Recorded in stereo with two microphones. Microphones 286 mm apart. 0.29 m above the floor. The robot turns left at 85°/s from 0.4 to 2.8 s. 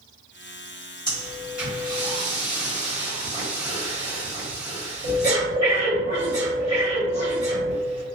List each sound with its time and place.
1.1 s breathing: 15° left (ahead or behind), 1.1 m; by 8.2 s 25° right (ahead or behind), 1.1 m